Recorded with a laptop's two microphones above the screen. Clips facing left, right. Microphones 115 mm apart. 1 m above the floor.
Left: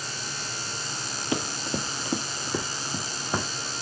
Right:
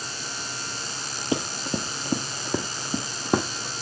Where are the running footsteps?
30° right (ahead or behind), 1.3 m; by 3.7 s 65° right (ahead or behind), 2 m.